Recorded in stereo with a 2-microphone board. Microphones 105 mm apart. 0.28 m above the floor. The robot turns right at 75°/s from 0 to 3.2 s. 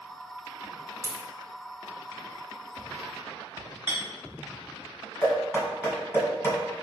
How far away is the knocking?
About 1.6 m.